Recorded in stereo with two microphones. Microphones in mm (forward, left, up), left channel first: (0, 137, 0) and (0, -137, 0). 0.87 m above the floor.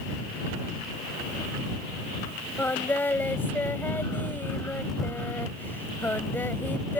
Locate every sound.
2.6 s singing: 5° left (ahead or behind)